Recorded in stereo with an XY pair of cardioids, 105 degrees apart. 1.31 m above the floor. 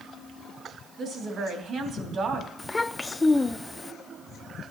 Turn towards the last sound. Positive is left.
turn(degrees=20)